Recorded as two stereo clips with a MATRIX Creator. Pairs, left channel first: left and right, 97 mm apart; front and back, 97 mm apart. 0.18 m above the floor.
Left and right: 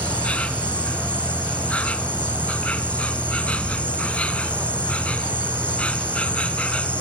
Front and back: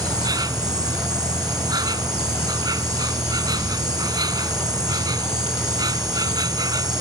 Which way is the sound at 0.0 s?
165° left.